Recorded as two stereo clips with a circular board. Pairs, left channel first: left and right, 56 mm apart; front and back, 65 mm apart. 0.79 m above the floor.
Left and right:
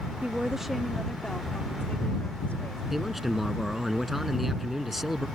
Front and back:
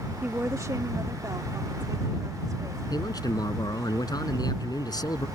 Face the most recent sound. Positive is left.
turn(degrees=-5)